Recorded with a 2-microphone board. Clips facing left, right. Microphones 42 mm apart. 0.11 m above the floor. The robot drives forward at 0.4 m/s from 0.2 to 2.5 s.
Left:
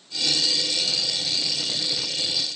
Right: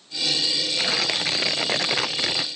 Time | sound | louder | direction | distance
0.8 | tearing paper | right 4 dB | 60° right (ahead or behind) | ?